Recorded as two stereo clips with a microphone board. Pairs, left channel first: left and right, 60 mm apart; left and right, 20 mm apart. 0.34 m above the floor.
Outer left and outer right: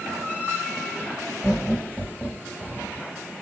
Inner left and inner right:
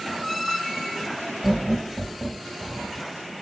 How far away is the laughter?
About 1.2 m.